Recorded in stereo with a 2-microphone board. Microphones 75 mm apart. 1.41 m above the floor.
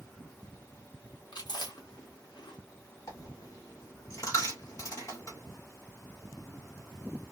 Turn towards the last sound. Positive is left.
turn(degrees=45)  # may be behind; listen again after turning